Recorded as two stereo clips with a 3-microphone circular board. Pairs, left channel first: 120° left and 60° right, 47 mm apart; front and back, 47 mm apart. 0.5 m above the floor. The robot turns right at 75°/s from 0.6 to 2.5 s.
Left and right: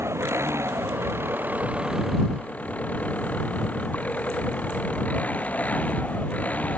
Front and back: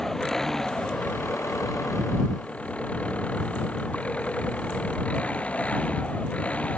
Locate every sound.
0.0 s an engine running: 80° right; by 6.8 s 65° left